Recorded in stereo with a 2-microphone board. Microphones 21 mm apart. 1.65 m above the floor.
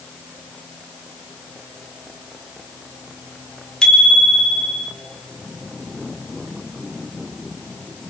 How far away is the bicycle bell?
About 4 m.